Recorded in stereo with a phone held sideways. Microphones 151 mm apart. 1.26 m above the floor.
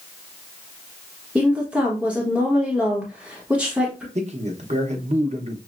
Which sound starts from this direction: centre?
A woman speaking, at 1.4 s.